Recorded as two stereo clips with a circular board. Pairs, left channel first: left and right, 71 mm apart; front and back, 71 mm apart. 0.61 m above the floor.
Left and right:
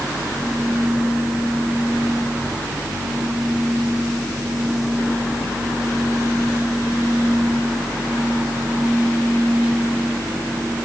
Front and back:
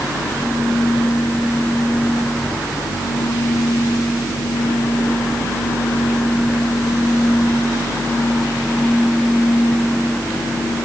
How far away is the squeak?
I don't hear a squeak.